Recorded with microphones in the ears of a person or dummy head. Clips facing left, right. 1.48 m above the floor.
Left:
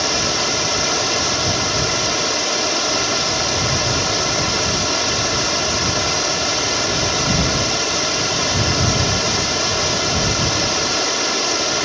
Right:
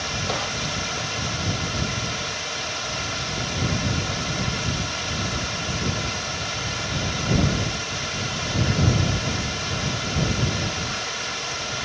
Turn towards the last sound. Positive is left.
turn(degrees=70)  # may be behind; listen again after turning